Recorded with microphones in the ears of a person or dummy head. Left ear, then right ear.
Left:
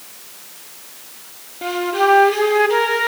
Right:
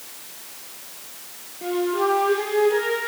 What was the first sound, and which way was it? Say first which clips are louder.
A flute: left 5 dB; 30° left (ahead or behind).